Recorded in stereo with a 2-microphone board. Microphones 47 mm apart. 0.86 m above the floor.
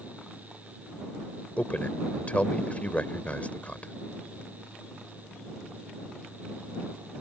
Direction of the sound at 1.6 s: 35° left (ahead or behind).